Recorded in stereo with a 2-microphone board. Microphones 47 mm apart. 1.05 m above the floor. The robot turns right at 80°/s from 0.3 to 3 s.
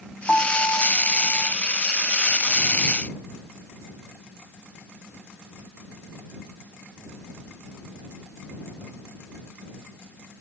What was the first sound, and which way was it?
A piano, 20° left.